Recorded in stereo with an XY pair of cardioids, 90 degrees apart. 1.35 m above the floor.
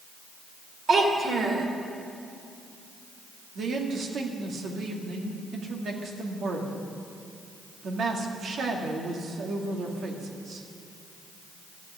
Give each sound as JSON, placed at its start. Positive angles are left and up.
{"t": 0.9, "sound": "a child speaking", "azimuth_deg": -60, "distance_m": 2.5}
{"t": 3.5, "sound": "a man speaking", "azimuth_deg": -65, "distance_m": 2.0}